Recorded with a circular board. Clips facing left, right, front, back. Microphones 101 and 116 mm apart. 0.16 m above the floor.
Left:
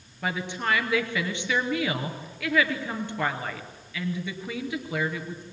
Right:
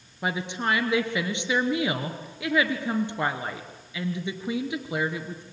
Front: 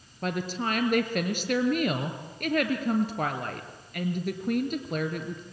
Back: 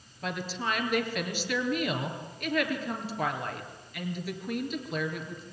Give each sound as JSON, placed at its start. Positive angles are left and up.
{"t": 0.2, "sound": "a woman speaking", "azimuth_deg": -25, "distance_m": 2.5}